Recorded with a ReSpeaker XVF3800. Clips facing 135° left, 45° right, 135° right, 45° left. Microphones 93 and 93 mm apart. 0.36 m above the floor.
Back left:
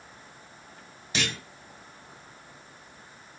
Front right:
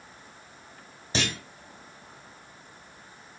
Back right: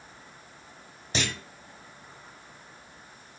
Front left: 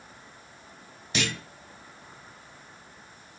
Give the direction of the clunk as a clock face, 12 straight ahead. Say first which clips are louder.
Front right 2 dB, front left 1 dB; 3 o'clock.